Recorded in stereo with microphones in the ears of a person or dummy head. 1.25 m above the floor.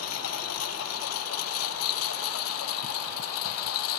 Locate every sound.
0.0 s a lawn mower: 80° left